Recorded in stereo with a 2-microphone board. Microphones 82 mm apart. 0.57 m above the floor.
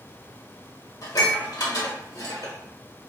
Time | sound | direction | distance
1.0 | dishes clattering | 55° left (ahead or behind) | 1.3 m